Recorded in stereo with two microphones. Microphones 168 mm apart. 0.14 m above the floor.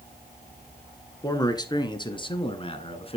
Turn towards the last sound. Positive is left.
turn(degrees=35)  # may be behind; listen again after turning